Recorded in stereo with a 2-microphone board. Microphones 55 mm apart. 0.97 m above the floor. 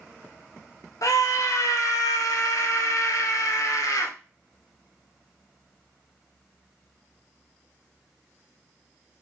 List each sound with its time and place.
1.0 s a scream: 70° left (ahead or behind), 1.0 m